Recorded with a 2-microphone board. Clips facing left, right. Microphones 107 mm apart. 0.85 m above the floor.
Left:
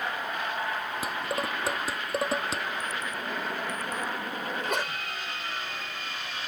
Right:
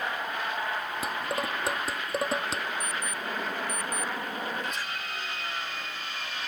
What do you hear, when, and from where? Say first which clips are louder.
1.0 s dishes clattering: even; centre (ahead or behind)
2.8 s an alarm clock: even; 25° left (ahead or behind)
4.5 s a sneeze: left 3 dB; 70° left (ahead or behind)